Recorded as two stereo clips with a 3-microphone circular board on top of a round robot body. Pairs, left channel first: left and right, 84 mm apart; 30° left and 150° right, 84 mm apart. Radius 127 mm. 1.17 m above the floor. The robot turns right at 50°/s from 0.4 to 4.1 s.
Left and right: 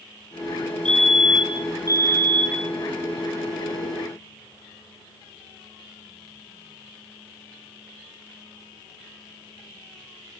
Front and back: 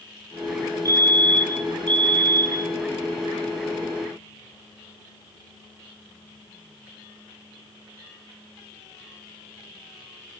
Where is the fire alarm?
165° left, 2.5 m; by 2.7 s 100° right, 2.5 m.